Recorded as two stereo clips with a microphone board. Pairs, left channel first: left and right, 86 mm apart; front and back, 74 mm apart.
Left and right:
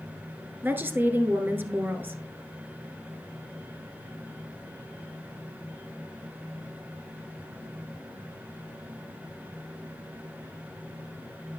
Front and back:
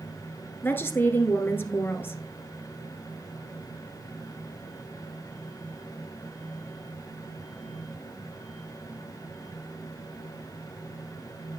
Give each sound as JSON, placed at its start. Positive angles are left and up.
{"t": 0.6, "sound": "a woman speaking", "azimuth_deg": -40, "distance_m": 1.3}